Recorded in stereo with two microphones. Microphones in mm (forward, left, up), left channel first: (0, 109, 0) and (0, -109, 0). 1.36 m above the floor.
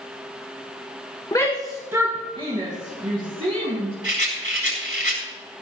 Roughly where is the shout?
Centre.